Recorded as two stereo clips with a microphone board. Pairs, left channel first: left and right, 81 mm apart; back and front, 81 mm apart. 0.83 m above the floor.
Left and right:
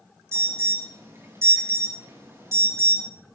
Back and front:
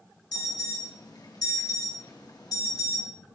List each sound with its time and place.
0.3 s an alarm: 145° right, 4 m